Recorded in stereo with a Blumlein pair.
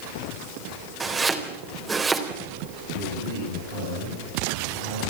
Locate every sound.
1.0 s chopping: 15° right, 3.5 m
2.9 s a man speaking: 65° right, 9.5 m